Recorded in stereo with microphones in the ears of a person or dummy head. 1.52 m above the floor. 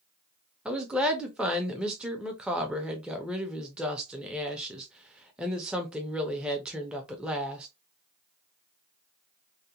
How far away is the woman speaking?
About 0.5 m.